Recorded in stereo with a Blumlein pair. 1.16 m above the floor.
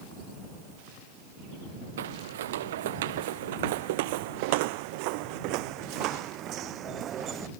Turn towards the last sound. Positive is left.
turn(degrees=-25)